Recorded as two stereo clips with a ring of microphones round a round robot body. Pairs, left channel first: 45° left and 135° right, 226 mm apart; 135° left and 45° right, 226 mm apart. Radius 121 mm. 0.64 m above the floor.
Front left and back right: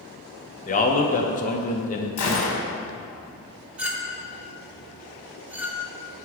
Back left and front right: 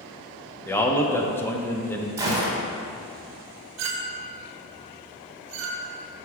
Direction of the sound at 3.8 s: 50° right.